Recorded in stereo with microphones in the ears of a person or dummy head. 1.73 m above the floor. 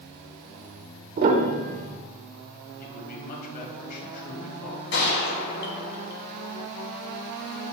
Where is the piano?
50° right (ahead or behind), 0.8 m.